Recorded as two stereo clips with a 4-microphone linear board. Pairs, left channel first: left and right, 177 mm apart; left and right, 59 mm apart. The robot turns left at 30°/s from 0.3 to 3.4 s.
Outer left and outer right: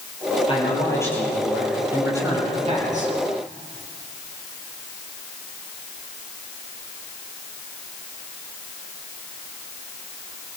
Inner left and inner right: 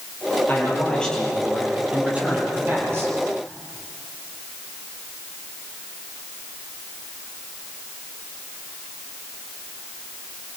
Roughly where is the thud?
No thud in this recording.